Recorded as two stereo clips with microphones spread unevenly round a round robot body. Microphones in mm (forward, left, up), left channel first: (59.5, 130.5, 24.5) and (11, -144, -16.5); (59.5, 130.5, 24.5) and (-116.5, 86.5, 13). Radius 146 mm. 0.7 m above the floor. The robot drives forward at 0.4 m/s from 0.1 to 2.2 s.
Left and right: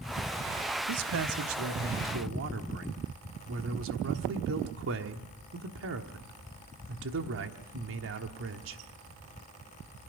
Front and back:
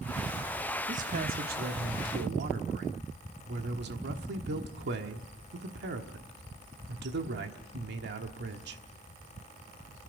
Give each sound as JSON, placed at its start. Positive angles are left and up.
{"t": 0.9, "sound": "a man speaking", "azimuth_deg": -115, "distance_m": 0.9}